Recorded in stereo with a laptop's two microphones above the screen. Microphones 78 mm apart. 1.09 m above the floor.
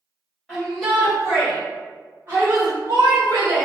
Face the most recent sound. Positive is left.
turn(degrees=-55)  # may be behind; listen again after turning